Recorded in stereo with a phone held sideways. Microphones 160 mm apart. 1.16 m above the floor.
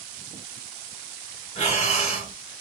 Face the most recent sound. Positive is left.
turn(degrees=45)  # may be behind; listen again after turning